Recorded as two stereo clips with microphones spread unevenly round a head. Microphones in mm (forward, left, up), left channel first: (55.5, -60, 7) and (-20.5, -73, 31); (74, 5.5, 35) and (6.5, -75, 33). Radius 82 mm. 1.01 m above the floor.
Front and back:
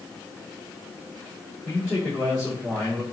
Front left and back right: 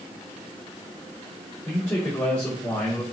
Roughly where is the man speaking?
Behind left.